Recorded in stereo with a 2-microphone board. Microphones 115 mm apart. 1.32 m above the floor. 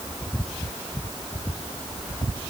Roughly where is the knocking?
I don't hear knocking.